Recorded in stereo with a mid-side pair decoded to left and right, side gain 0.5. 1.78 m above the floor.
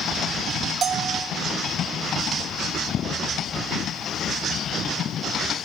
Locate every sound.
0.8 s a bell: 50° right, 2.5 m